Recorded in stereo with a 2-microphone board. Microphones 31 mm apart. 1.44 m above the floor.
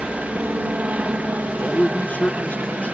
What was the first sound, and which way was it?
A helicopter, 50° right (ahead or behind).